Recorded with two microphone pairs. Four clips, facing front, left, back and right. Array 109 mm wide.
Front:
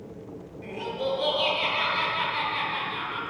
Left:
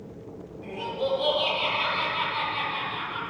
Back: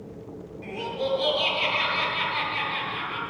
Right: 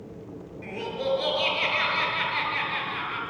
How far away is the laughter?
About 6.5 m.